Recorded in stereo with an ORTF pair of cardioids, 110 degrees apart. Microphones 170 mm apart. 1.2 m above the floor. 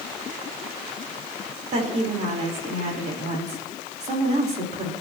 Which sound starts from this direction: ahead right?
A woman speaking, at 1.7 s.